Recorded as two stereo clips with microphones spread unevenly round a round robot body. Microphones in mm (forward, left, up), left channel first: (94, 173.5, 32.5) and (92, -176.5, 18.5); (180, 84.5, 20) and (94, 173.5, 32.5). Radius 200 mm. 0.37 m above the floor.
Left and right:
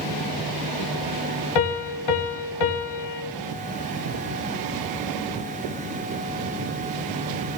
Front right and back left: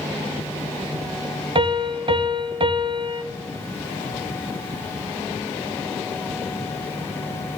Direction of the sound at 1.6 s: 85° left.